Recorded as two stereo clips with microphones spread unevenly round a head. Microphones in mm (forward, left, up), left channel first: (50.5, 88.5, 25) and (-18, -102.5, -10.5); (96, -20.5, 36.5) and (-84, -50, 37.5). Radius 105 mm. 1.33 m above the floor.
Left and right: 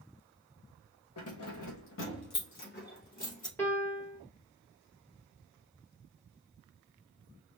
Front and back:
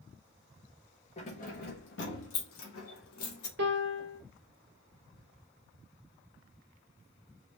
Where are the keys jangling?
70° left, 1.4 m; by 3.5 s 15° left, 2 m.